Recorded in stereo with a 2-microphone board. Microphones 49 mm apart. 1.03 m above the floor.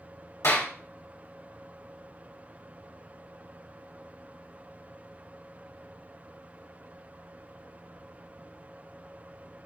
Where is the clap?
80° left, 2 m.